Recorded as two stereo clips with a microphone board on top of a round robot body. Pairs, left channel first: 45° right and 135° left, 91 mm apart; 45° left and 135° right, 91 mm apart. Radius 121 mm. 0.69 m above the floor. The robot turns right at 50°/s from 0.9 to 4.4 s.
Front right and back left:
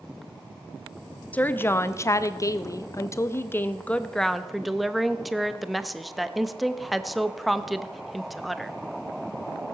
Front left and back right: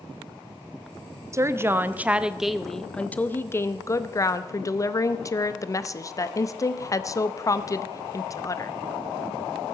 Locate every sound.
1.3 s a woman speaking: 105° right, 0.9 m; by 8.7 s 45° left, 0.9 m